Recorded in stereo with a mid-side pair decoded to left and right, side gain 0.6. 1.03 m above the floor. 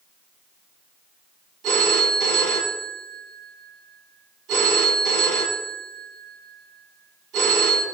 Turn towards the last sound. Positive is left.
turn(degrees=-65)